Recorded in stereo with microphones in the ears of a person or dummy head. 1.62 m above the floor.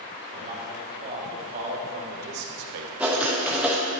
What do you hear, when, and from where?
0.3 s a man speaking: 35° right (ahead or behind), 1.9 m; by 2.9 s 70° right (ahead or behind), 0.8 m
3.0 s writing: 5° right (ahead or behind), 0.8 m